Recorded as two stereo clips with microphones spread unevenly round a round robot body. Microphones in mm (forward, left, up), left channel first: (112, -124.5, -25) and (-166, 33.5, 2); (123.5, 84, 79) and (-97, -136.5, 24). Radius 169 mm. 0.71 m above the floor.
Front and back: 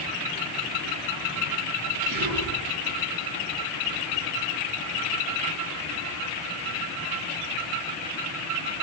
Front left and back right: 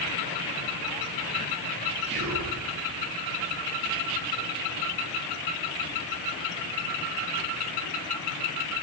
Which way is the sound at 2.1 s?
155° left.